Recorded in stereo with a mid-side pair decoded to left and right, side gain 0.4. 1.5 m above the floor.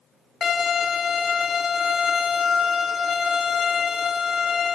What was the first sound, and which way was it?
A violin, 50° left.